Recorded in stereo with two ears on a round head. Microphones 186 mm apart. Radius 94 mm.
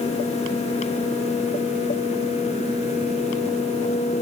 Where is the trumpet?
I don't hear a trumpet.